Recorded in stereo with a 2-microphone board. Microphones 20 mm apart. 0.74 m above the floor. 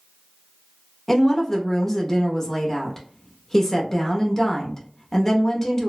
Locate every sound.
1.1 s a woman speaking: 15° left (ahead or behind), 0.7 m